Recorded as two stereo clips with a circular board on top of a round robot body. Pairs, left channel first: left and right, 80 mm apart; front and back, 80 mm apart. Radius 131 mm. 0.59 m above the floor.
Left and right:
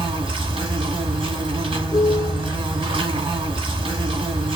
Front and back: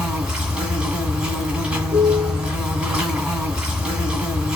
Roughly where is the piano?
Behind left.